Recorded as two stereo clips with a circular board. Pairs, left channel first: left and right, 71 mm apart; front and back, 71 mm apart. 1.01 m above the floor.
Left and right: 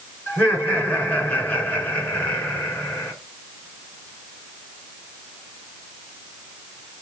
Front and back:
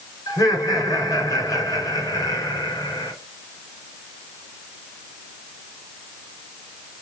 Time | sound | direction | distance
0.3 | laughter | 30° left | 4 m